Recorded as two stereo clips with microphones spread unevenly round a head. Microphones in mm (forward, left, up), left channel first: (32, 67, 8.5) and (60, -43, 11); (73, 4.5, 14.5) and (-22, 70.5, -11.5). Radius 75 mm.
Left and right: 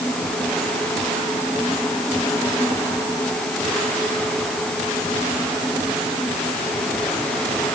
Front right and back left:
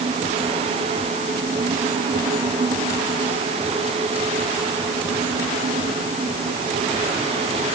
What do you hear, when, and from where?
Only background noise.